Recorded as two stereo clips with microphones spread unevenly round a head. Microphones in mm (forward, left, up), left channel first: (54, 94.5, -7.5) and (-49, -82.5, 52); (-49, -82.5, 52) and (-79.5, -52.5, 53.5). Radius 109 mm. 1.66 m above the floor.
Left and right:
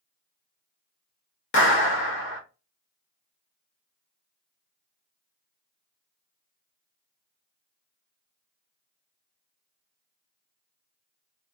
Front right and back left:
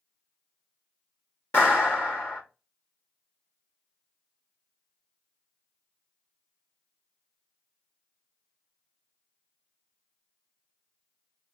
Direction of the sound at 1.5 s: 20° left.